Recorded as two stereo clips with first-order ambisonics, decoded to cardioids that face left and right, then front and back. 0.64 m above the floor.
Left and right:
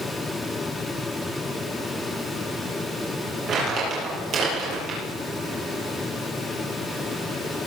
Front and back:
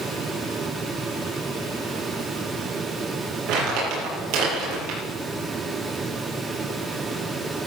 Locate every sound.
3.5 s crumpling: 150° right, 7 m